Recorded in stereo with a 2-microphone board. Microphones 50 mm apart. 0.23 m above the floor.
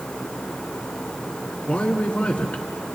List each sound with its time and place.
1.7 s a man speaking: 25° left (ahead or behind), 2 m